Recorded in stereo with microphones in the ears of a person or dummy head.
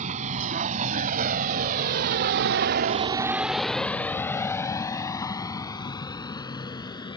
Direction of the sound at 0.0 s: 40° right (ahead or behind).